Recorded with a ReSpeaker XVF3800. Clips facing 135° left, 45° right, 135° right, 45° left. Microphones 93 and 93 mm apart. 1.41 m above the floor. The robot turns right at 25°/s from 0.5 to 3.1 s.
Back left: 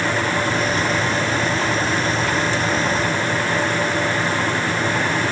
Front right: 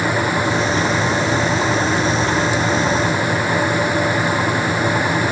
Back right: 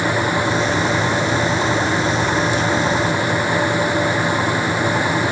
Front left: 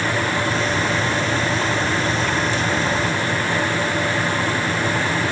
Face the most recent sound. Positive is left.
No sound to turn to.